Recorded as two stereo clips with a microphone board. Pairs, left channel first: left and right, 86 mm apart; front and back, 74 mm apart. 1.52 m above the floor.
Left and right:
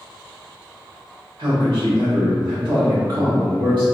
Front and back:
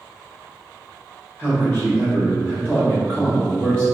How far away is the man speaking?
About 1.0 m.